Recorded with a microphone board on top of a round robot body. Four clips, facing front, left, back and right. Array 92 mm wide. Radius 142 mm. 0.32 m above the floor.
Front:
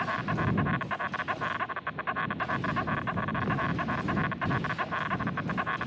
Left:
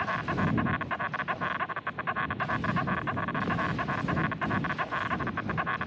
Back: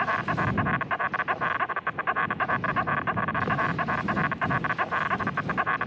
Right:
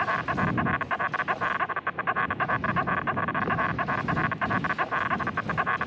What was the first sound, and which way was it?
An insect, 140° right.